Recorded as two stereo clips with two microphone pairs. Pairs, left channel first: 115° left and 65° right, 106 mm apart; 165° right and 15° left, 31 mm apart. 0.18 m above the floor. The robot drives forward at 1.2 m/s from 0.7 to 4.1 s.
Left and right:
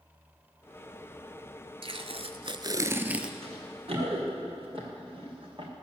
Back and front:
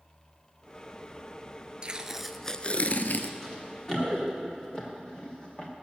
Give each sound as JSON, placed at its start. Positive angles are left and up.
{"t": 1.8, "sound": "tape being pulled", "azimuth_deg": -45, "distance_m": 1.0}
{"t": 3.4, "sound": "running footsteps", "azimuth_deg": -90, "distance_m": 6.0}